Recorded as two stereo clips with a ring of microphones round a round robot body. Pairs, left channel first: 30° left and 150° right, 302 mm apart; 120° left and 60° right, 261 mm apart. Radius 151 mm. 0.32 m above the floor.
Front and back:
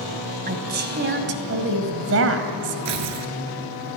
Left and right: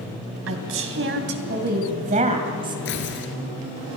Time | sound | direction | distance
0.5 | a woman speaking | 95° right | 3 m
2.9 | tearing paper | 175° left | 2 m